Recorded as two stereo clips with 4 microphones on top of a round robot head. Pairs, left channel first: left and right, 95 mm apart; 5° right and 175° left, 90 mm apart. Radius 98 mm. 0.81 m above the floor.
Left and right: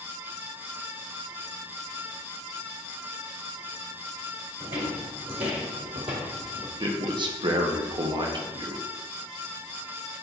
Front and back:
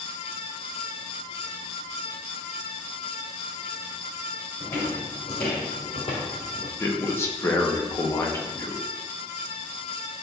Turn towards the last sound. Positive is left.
turn(degrees=-65)